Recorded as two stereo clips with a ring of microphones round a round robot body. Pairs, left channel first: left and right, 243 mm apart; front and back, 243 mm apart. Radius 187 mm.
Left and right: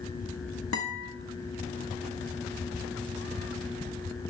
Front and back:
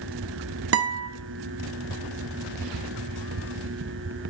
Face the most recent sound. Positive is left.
turn(degrees=145)